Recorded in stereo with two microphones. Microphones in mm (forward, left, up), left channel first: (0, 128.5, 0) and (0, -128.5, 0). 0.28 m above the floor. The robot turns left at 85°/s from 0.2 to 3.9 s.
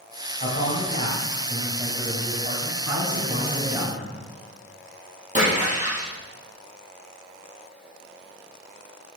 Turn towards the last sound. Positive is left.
turn(degrees=-25)  # may be behind; listen again after turning